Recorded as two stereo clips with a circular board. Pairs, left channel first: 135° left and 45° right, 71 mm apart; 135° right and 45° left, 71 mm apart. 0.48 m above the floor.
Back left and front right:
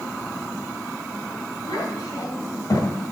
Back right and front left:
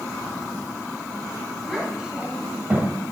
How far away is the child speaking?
About 2 m.